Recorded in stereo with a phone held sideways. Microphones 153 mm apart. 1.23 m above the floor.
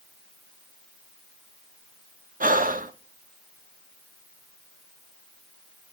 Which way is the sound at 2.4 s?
65° right (ahead or behind).